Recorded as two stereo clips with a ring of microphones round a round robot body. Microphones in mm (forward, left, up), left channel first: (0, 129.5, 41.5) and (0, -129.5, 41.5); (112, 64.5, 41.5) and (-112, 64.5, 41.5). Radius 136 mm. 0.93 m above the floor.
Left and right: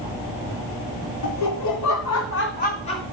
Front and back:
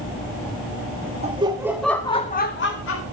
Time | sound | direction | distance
1.2 | laughter | 115° left | 1.9 m